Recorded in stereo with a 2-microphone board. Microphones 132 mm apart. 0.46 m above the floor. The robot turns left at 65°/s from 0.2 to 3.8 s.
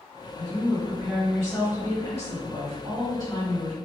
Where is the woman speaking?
135° right, 2.0 m; by 3.8 s 5° left, 2.0 m.